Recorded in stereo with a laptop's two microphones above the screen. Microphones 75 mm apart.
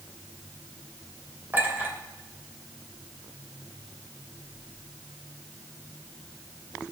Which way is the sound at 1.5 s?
25° right (ahead or behind).